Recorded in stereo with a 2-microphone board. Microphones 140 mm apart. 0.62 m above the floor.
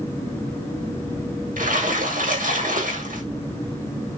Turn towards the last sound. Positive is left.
turn(degrees=-70)  # may be behind; listen again after turning